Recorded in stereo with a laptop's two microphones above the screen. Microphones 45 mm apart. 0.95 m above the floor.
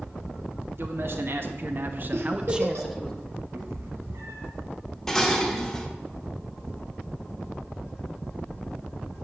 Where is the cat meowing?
70° right (ahead or behind), 2 m.